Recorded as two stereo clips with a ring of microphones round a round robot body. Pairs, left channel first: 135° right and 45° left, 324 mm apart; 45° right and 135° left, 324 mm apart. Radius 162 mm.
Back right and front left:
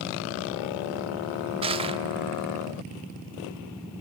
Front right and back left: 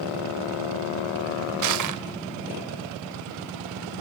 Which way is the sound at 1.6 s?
115° left.